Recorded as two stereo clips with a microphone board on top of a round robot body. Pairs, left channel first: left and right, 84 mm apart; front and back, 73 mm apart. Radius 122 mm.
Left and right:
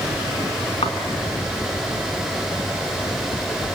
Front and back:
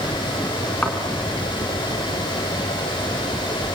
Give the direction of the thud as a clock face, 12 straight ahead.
10 o'clock.